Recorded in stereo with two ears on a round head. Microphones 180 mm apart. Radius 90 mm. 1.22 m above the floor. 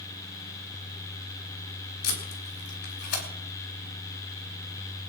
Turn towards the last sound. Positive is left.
turn(degrees=55)  # may be behind; listen again after turning